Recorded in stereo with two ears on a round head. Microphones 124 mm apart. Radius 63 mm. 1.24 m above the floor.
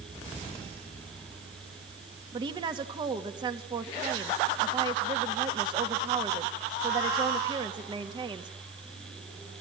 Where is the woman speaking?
35° right (ahead or behind), 2.5 m.